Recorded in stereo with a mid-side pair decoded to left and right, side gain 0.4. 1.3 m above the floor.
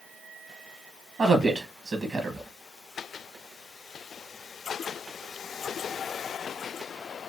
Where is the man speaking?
50° right, 1.0 m.